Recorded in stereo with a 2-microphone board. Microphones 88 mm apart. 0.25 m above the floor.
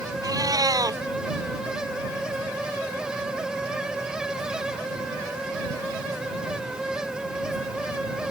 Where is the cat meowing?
50° right (ahead or behind).